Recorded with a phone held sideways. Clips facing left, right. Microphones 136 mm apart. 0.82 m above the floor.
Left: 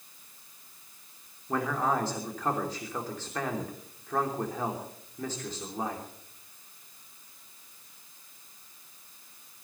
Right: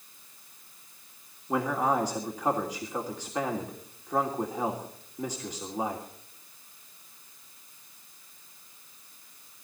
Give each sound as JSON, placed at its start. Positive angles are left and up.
{"t": 1.5, "sound": "a man speaking", "side_deg": -15, "distance_m": 2.5}